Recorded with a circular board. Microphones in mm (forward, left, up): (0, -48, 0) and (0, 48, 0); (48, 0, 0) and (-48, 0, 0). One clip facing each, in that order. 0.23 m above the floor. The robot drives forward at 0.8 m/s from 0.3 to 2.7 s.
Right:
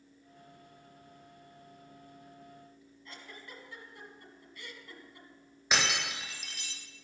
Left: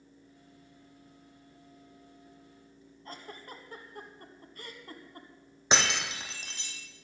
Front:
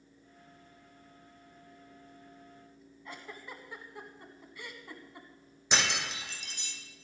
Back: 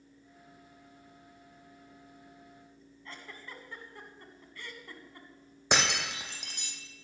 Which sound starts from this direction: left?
A giggle, at 3.0 s.